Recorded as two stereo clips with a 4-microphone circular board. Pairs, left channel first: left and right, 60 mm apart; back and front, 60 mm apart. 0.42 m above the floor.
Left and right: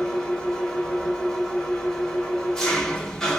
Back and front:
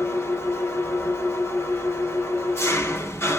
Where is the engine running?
170° left, 1.0 m.